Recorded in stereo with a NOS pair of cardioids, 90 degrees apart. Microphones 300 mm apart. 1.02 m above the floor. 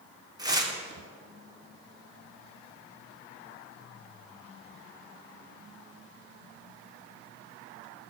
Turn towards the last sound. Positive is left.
turn(degrees=-15)